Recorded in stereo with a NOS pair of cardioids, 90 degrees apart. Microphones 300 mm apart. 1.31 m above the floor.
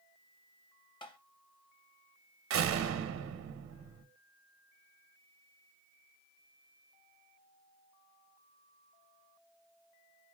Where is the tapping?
15° left, 0.8 m.